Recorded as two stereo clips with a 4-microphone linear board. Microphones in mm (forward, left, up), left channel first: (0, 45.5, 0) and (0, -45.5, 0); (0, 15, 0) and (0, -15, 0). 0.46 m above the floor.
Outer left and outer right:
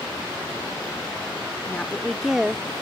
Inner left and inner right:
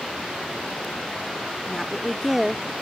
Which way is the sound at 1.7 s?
20° left (ahead or behind).